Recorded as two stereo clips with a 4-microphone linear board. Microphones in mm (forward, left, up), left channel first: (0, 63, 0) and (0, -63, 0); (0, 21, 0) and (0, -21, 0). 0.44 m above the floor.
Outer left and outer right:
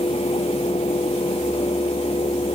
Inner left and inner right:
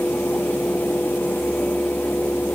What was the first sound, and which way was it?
Only background noise.